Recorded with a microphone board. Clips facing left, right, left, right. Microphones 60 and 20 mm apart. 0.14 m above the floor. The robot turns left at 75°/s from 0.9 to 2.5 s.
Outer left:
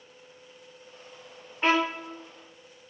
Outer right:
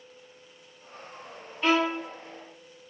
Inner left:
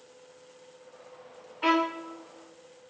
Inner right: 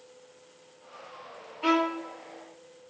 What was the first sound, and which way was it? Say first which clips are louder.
A violin: even, even; 30° left.